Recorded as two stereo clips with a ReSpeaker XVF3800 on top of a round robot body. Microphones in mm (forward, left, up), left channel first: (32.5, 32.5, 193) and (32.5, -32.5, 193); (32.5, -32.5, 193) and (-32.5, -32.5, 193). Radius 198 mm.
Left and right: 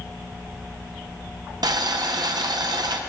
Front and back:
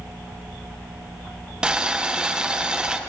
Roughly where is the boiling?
Right.